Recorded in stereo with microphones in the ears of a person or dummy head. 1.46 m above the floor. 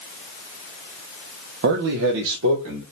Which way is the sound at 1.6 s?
60° right (ahead or behind).